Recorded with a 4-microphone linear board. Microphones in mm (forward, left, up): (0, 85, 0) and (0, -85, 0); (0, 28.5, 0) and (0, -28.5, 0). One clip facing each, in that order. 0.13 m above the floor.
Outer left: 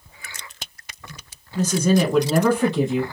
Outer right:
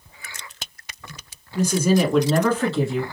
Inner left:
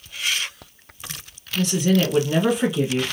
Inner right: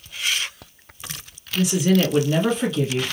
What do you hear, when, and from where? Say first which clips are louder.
1.6 s a woman speaking: even, inner right 1 dB; 15° right (ahead or behind), 1.1 m; by 3.0 s 25° left (ahead or behind), 1.4 m